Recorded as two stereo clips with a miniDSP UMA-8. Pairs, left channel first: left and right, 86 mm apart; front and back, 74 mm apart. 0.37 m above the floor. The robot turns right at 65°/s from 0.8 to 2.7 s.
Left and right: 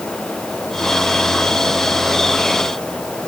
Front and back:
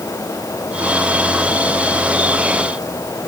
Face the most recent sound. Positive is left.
No sound to turn to.